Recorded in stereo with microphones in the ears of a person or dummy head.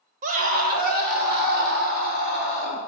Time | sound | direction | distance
0.2 | a scream | 45° right (ahead or behind) | 1.5 m